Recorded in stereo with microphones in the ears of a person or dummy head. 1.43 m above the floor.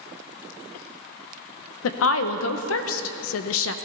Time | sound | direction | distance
1.8 | a woman speaking | 80° left | 1.0 m